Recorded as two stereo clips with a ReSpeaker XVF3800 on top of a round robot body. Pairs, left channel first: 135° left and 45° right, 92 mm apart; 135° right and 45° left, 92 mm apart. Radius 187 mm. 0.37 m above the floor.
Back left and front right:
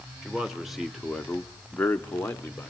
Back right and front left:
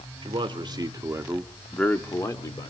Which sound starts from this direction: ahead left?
A man speaking, at 0.2 s.